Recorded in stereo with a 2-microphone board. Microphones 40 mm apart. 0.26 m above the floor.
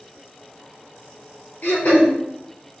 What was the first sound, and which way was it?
Throat clearing, 50° left (ahead or behind).